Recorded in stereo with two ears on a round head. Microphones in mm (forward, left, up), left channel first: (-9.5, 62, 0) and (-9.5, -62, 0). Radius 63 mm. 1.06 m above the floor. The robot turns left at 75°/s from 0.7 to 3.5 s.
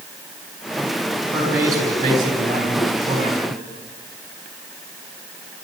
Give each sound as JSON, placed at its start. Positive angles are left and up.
{"t": 1.3, "sound": "a man speaking", "azimuth_deg": 5, "distance_m": 6.5}